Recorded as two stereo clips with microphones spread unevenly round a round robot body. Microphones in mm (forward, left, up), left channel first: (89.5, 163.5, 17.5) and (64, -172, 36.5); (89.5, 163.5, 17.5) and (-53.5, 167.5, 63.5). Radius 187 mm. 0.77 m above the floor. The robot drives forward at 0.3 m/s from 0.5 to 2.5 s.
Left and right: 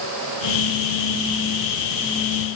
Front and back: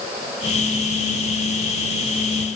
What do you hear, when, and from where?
Only background noise.